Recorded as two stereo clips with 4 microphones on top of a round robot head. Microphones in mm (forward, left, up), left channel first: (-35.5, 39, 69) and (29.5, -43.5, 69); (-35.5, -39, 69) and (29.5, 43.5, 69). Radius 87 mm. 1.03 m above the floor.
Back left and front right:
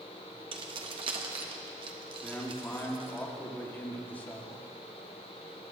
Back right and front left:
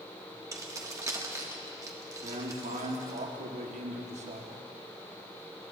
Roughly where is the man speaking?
Ahead left.